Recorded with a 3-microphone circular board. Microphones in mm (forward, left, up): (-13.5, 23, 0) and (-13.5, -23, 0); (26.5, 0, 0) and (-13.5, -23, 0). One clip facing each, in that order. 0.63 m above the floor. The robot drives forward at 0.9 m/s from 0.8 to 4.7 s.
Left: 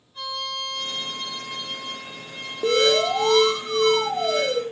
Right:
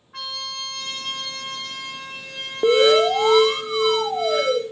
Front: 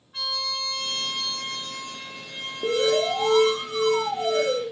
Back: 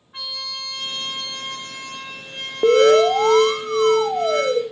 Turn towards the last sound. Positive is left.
turn(degrees=-175)